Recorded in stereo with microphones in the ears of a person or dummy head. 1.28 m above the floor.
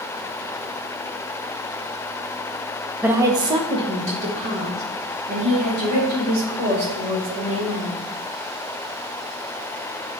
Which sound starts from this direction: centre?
A woman speaking, at 3.0 s.